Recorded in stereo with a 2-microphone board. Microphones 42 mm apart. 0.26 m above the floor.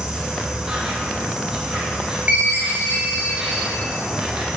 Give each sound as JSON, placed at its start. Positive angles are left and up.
{"t": 0.0, "sound": "an insect", "side_deg": -10, "distance_m": 1.2}
{"t": 2.3, "sound": "a chime", "side_deg": -55, "distance_m": 1.3}